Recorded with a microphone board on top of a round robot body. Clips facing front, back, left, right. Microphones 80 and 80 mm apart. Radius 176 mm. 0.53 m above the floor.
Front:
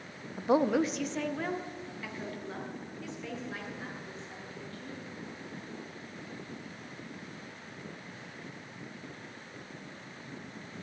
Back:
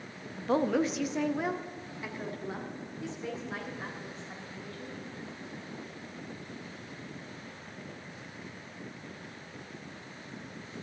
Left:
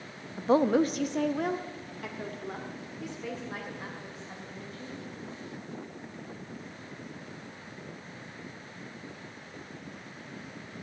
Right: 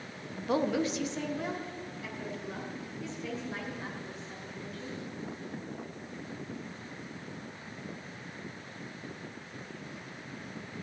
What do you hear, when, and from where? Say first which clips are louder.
0.4 s a woman speaking: front 1 dB, left 6 dB; 50° left, 0.7 m; by 5.0 s 120° left, 3.5 m